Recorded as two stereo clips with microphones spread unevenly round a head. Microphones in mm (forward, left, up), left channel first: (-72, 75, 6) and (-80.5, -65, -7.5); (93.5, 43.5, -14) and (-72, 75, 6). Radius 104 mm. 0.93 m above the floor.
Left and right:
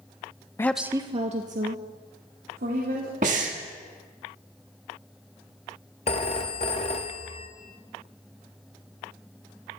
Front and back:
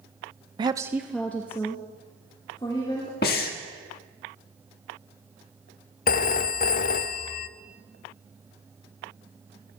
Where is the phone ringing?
25° left, 0.6 m.